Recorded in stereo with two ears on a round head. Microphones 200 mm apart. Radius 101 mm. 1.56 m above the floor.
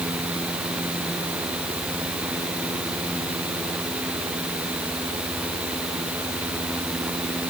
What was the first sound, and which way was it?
Only background noise.